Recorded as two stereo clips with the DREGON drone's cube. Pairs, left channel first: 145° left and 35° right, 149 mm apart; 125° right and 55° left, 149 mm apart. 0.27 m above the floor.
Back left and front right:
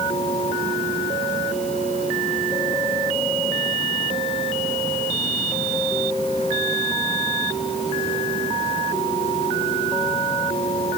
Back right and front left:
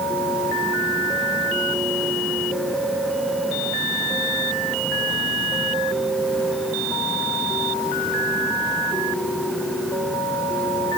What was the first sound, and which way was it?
Only background noise.